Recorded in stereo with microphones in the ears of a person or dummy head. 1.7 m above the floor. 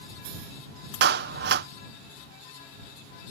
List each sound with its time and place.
1.0 s a clap: 70° right (ahead or behind)